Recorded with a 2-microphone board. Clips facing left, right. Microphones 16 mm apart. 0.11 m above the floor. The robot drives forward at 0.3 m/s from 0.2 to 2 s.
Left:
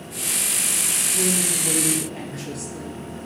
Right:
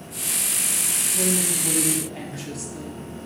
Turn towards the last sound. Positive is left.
turn(degrees=0)  # may be behind; listen again after turning